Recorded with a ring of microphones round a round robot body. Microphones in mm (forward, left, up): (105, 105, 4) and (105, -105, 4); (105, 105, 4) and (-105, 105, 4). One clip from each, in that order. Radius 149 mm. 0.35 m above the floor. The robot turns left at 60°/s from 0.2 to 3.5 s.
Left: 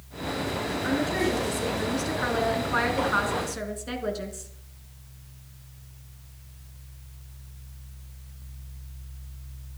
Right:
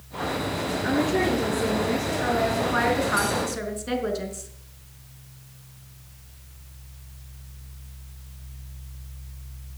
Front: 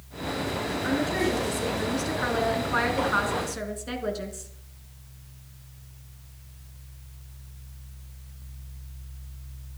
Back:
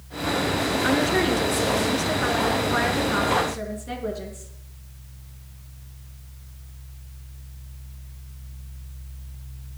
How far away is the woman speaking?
About 4 m.